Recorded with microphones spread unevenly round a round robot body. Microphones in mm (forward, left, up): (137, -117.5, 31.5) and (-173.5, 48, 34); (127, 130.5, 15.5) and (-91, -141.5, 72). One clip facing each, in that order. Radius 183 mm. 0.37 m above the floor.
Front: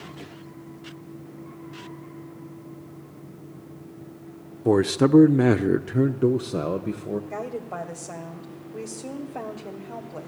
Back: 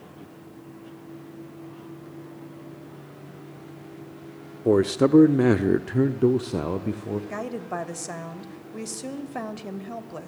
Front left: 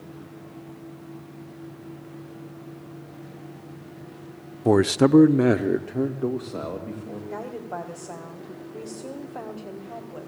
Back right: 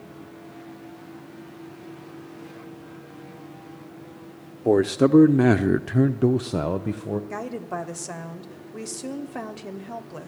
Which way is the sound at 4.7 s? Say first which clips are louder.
Even, even; 50° left.